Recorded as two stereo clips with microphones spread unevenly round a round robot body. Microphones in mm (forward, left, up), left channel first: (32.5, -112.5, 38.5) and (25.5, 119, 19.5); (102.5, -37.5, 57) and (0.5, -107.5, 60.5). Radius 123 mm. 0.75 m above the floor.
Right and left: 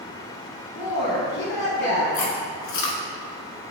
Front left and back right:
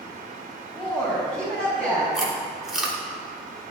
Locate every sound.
0.8 s a woman speaking: 75° right, 5 m
2.1 s chewing: 60° right, 3 m